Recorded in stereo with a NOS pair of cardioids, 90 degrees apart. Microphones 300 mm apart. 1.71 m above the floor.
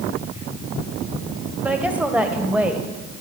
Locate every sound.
1.6 s a woman speaking: 5° right, 1.3 m